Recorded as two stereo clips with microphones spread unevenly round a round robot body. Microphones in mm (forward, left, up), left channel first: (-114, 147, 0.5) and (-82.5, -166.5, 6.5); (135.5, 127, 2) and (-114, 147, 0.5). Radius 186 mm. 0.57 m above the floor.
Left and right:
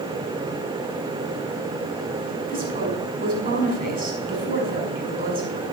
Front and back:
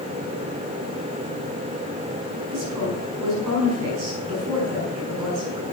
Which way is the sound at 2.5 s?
145° right.